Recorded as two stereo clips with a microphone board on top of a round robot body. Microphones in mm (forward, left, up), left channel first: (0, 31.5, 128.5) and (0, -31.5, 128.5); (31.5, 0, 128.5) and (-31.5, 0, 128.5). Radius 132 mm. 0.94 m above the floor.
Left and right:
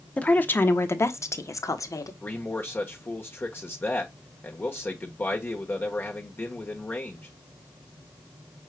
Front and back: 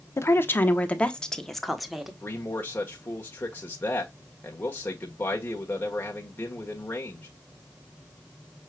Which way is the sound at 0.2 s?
30° left.